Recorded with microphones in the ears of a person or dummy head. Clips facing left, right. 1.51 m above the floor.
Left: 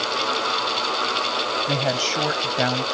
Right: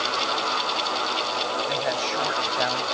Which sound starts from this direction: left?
A woman speaking, at 1.7 s.